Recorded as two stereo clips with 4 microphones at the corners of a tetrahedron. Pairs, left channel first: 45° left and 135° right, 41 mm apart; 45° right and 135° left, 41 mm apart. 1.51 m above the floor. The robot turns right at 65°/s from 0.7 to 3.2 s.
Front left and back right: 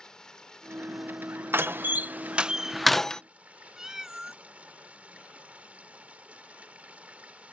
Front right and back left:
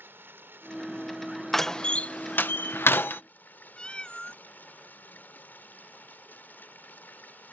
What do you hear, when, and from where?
0.0 s running water: 120° left; by 7.5 s 80° right
1.5 s a door slam: 130° right; by 3.2 s 20° right
3.8 s a cat meowing: 70° right